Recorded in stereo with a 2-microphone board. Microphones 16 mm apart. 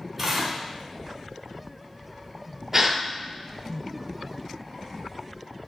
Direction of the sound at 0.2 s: 15° right (ahead or behind).